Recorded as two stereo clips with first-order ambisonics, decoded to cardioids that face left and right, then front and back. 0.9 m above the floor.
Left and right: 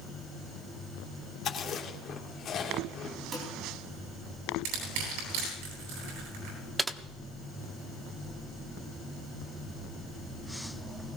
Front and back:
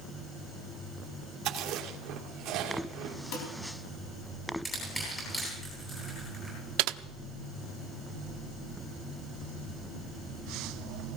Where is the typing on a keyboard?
170° right, 0.7 m.